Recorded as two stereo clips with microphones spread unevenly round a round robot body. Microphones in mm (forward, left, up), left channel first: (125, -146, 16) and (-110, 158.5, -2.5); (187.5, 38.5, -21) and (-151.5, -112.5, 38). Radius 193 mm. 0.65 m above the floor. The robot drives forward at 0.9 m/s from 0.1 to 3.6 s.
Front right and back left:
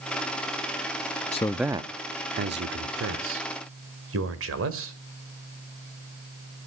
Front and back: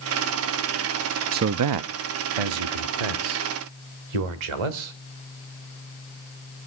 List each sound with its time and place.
1.3 s a man speaking: 100° right, 0.5 m; by 4.9 s 175° right, 2 m